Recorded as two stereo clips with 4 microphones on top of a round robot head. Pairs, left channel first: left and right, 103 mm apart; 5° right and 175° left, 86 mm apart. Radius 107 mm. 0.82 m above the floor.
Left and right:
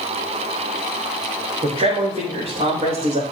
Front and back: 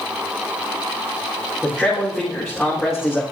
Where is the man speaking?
100° right, 4 m; by 3.2 s 85° right, 3.5 m.